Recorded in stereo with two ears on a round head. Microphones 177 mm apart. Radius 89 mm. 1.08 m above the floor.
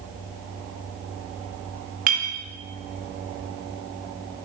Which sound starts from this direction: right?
A clink, at 2.1 s.